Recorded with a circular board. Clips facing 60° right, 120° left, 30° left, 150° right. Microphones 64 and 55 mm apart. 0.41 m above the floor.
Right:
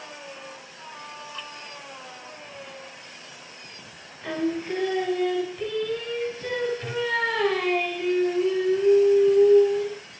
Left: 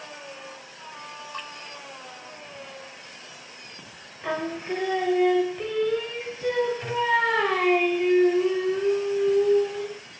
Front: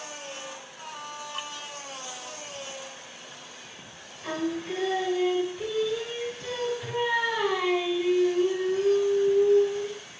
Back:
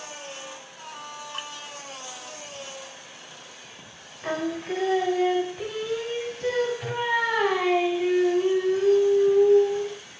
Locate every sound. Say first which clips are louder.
1.3 s dripping: left 5 dB, back 1 dB; 150° left, 1.8 m
4.2 s singing: right 2 dB, back 2 dB; 175° right, 1.6 m